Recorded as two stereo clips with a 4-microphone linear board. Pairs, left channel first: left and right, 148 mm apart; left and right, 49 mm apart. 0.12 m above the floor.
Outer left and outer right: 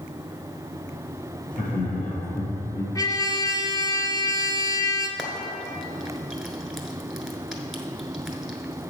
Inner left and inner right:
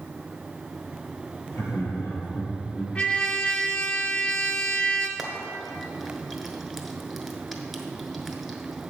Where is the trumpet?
25° left (ahead or behind), 0.7 m.